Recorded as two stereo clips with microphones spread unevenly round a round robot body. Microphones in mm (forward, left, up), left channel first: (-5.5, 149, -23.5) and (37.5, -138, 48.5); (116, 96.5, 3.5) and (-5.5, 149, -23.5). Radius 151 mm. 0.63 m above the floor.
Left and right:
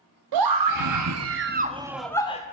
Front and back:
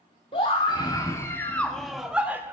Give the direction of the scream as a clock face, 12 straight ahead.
3 o'clock.